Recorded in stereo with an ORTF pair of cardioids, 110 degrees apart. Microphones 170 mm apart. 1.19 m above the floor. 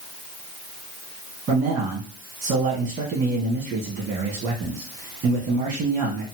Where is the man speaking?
65° right, 1.6 m.